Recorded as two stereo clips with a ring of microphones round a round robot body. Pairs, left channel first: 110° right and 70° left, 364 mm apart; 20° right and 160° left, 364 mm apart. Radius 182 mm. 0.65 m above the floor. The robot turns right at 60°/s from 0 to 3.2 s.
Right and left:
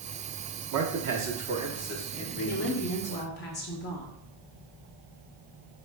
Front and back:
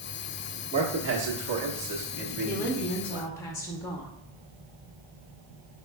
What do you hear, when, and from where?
0.7 s a man speaking: 85° left, 1.1 m; by 3.3 s 125° right, 1.1 m
2.5 s a woman speaking: 140° right, 0.7 m; by 4.1 s 95° right, 0.7 m